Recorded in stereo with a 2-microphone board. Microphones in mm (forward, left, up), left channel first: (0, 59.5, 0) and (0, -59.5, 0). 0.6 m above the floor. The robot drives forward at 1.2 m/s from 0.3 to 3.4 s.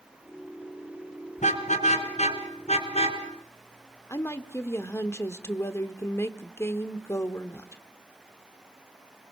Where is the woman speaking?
25° left (ahead or behind), 1.2 m.